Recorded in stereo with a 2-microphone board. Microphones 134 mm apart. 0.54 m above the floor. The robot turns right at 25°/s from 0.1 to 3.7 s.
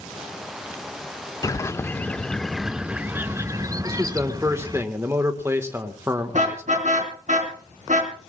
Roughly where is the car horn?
Right.